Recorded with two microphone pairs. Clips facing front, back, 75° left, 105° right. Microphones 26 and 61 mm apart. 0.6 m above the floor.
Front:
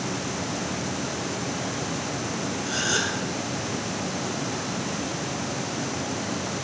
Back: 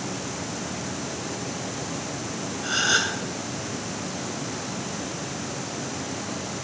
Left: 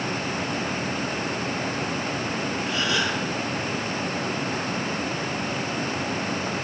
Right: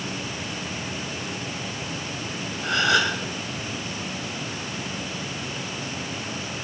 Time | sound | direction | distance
2.6 | a gasp | 120° right | 2.5 m